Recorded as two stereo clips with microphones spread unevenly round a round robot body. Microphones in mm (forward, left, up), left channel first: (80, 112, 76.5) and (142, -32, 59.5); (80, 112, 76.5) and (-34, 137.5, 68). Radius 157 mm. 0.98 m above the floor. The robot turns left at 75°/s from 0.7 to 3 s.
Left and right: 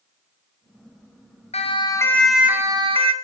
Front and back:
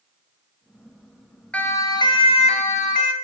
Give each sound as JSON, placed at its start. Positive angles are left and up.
{"t": 1.5, "sound": "a siren", "azimuth_deg": 65, "distance_m": 4.5}